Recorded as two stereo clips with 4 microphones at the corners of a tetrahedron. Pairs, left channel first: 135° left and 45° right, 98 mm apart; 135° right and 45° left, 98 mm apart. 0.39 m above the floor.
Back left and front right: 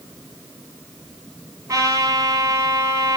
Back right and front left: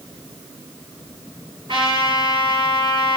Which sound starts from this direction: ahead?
A trumpet, at 1.7 s.